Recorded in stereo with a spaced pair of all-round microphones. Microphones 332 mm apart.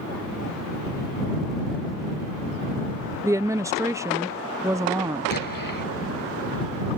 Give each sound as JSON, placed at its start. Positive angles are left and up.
{"t": 3.2, "sound": "a woman speaking", "side_deg": -10}
{"t": 5.3, "sound": "an explosion", "side_deg": 80}